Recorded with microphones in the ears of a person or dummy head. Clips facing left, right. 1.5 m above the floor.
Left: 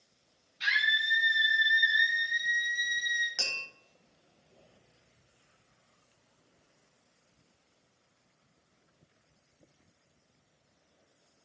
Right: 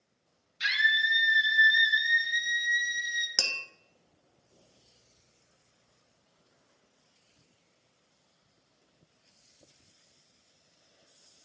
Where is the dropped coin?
I don't hear a dropped coin.